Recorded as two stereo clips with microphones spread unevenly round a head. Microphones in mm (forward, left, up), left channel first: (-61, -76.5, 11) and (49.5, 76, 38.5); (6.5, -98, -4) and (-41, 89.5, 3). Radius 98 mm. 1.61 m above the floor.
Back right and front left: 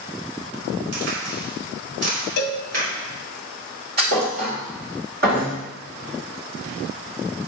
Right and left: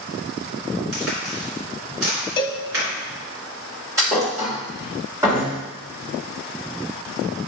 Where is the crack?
85° left, 3.5 m.